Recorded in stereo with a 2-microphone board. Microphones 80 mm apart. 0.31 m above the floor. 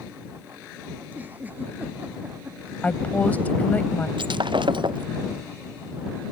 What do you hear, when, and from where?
1.0 s a giggle: 20° right (ahead or behind)
2.8 s a woman speaking: 20° left (ahead or behind)
4.2 s breaking glass: 85° right